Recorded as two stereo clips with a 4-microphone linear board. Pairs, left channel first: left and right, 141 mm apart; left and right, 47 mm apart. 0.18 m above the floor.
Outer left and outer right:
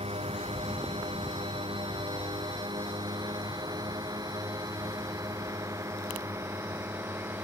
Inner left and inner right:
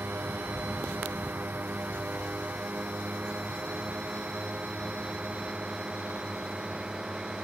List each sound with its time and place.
0.0 s a drone: 45° right (ahead or behind); by 7.5 s 15° right (ahead or behind)